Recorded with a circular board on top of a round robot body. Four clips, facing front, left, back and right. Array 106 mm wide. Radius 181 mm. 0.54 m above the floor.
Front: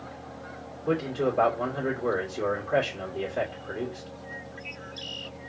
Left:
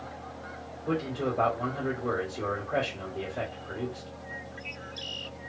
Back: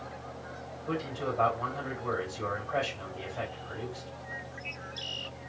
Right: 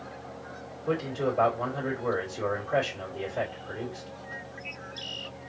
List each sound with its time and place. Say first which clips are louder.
0.9 s a man speaking: right 1 dB, front 7 dB; straight ahead, 2.5 m